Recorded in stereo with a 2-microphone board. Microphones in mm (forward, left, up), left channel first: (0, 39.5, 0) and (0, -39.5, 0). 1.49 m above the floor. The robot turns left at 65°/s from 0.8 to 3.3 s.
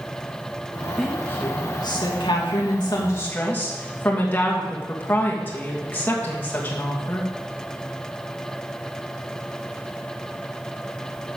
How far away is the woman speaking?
About 2.5 m.